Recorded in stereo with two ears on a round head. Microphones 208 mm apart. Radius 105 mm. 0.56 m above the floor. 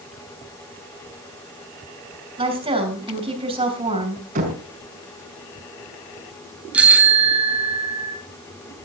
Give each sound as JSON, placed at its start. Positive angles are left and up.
{"t": 2.4, "sound": "a woman speaking", "side_deg": -25, "distance_m": 5.5}
{"t": 4.3, "sound": "knocking", "side_deg": -35, "distance_m": 4.5}
{"t": 6.7, "sound": "a bicycle bell", "side_deg": -5, "distance_m": 3.5}